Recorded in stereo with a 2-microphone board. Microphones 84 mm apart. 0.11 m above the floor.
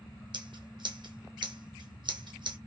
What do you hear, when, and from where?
0.3 s scissors: 65° right (ahead or behind), 1.1 m